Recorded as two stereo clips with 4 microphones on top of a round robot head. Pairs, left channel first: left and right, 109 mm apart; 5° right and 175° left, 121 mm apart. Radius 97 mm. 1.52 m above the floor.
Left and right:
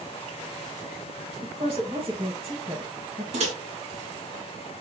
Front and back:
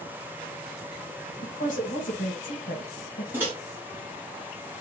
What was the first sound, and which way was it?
A woman speaking, 30° right.